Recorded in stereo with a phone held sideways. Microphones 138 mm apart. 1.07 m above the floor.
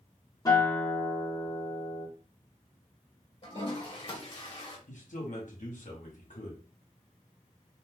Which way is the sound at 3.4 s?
40° left (ahead or behind).